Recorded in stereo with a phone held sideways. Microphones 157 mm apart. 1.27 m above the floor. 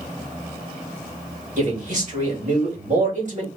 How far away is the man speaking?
About 2.5 m.